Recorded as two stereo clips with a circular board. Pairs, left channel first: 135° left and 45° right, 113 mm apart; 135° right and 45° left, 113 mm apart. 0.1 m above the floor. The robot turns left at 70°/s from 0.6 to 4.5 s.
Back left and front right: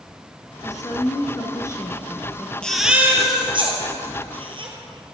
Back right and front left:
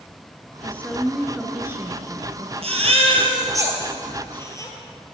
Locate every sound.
0.6 s a woman speaking: 170° left, 1.2 m; by 2.5 s 35° left, 1.2 m
2.6 s a baby crying: 55° left, 1.6 m; by 4.7 s 75° right, 1.6 m